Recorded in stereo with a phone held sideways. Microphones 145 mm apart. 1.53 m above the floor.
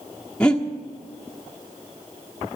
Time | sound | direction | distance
0.4 | breathing | 5° left (ahead or behind) | 1.3 m